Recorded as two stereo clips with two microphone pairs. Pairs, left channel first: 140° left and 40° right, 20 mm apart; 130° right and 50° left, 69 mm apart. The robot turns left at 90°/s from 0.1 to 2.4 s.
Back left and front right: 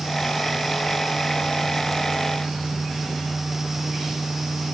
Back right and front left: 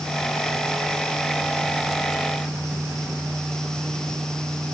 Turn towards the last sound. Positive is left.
No sound to turn to.